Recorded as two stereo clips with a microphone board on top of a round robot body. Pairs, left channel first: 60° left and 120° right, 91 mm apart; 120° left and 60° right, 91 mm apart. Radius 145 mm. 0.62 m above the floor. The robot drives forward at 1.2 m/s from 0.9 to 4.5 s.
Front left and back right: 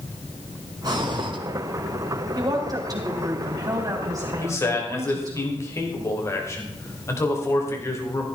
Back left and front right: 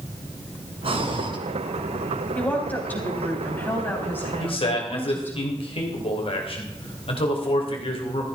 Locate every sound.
0.8 s breathing: 70° right, 2 m; by 1.4 s 90° right, 2 m
2.4 s a woman speaking: 165° right, 2.5 m; by 5.4 s 175° right, 5 m
4.4 s a man speaking: 115° left, 3 m; by 8.2 s 120° left, 3 m